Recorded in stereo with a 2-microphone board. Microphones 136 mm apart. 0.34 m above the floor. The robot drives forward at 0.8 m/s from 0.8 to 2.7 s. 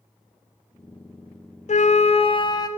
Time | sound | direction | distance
1.7 | a flute | 55° left (ahead or behind) | 0.5 m